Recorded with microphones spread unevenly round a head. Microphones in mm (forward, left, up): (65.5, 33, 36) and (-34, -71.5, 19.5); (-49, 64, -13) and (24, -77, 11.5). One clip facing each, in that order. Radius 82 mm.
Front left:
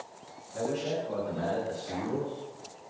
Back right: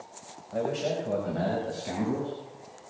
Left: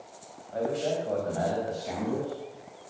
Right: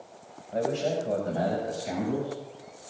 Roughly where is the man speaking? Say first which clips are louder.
Back right 2 dB, right 1 dB; behind right.